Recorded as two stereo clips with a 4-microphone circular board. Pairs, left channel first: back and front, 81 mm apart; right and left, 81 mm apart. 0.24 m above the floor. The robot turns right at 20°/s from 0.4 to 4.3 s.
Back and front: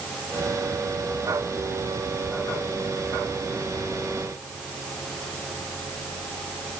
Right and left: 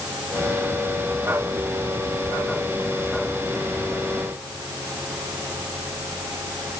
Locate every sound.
Only background noise.